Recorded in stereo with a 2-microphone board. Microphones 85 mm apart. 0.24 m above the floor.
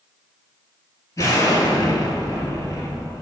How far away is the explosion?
About 1.2 m.